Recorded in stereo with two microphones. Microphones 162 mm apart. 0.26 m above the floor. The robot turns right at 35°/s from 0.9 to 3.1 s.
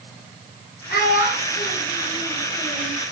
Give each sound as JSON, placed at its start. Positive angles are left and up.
{"t": 0.9, "sound": "a child speaking", "side_deg": 70, "distance_m": 4.0}